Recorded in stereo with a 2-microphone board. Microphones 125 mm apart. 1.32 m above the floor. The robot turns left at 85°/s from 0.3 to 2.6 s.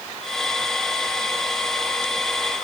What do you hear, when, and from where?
Only background noise.